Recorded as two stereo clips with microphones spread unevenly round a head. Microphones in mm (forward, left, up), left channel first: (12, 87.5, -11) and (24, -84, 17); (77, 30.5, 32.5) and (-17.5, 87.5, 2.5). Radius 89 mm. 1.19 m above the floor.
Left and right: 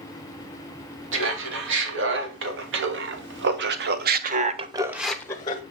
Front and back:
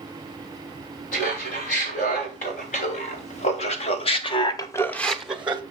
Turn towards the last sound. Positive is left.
turn(degrees=115)